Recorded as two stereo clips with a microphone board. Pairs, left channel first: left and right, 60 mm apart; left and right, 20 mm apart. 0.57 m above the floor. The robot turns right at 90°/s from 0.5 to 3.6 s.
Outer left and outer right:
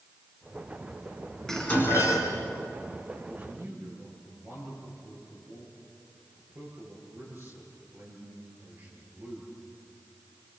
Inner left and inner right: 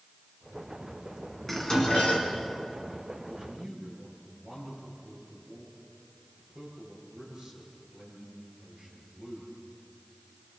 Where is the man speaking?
15° right (ahead or behind), 10 m; by 9.6 s 45° right (ahead or behind), 10 m.